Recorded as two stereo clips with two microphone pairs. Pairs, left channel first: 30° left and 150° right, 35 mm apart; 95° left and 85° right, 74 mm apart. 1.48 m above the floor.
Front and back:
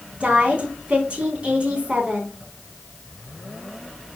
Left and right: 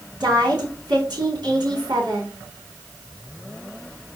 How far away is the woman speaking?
About 4 m.